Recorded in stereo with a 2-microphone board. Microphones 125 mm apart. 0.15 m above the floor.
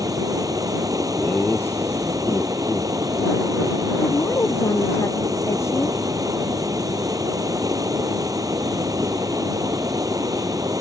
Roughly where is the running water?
Right.